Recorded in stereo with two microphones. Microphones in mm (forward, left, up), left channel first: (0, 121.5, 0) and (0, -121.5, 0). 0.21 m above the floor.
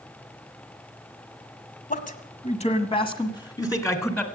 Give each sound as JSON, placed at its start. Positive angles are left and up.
{"t": 1.9, "sound": "a man speaking", "side_deg": 35, "distance_m": 1.4}